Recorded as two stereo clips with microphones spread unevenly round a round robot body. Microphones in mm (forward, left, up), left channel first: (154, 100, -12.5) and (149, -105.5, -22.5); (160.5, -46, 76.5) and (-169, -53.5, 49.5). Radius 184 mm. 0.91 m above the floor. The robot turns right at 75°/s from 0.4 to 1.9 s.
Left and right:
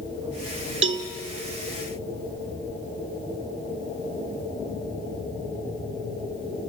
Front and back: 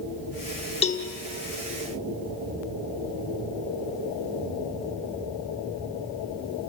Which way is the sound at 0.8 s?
70° right.